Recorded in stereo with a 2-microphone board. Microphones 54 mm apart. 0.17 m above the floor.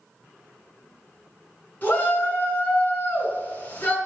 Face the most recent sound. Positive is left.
turn(degrees=30)  # may be behind; listen again after turning